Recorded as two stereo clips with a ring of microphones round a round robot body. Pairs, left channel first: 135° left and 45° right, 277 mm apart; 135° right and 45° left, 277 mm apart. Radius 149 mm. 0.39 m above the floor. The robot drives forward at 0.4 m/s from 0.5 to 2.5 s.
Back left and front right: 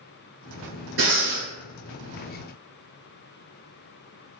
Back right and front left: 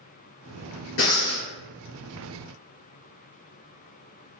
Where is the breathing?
90° right, 1.5 m; by 1.5 s 100° right, 1.5 m.